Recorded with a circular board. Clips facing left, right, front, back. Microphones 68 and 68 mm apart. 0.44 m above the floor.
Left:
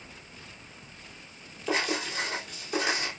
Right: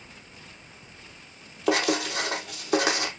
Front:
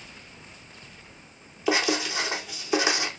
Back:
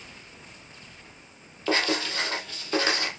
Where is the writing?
80° right, 4.5 m.